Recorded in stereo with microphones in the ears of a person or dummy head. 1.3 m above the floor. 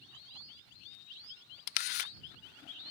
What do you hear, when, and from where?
1.7 s a camera shutter: 45° left (ahead or behind)